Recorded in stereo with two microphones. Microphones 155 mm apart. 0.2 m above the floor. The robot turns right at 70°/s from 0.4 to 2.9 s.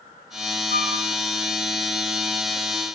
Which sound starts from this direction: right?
A flute, at 0.7 s.